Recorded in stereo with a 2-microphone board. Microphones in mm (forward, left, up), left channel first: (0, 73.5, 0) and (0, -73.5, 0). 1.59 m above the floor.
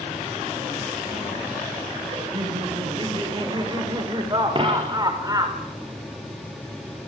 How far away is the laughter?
About 7.5 m.